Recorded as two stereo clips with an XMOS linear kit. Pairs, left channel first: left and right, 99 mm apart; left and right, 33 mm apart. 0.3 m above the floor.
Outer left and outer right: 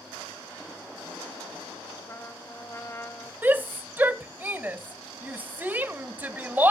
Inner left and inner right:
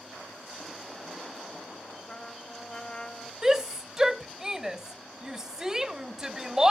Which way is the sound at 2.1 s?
30° left (ahead or behind).